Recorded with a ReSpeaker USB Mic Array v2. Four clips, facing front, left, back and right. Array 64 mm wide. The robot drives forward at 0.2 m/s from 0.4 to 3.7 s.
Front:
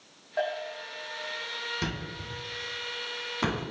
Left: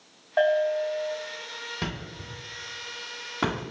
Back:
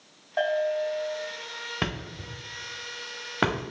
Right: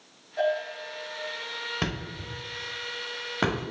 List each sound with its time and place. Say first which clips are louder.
0.4 s a bell: left 6 dB, back 7 dB; 110° left, 1.0 m; by 1.2 s 120° left, 1.0 m
1.8 s a thud: right 2 dB, back 2 dB; 160° right, 0.9 m; by 3.6 s 165° right, 1.3 m